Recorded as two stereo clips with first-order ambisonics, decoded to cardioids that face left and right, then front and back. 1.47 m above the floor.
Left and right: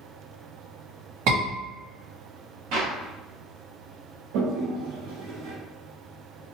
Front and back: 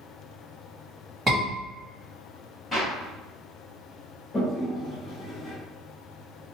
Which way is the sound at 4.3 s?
85° right.